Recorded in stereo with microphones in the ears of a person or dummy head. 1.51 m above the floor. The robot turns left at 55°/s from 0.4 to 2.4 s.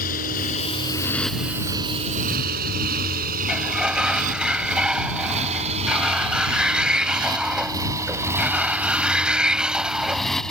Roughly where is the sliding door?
Centre.